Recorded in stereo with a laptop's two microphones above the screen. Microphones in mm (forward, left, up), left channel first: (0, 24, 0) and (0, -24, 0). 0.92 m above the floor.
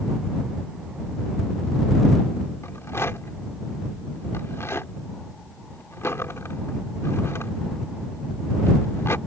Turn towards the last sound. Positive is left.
turn(degrees=65)  # may be behind; listen again after turning